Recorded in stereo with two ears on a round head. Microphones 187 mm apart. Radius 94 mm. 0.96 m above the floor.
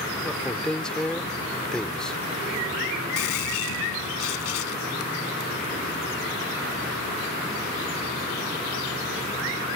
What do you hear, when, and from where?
0.2 s a man speaking: 5° left (ahead or behind)
3.2 s a gunshot: 85° left